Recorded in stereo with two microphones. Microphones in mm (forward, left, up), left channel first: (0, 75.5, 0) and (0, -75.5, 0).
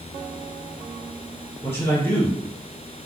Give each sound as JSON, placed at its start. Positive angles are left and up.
{"t": 1.6, "sound": "a man speaking", "side_deg": 15, "distance_m": 1.8}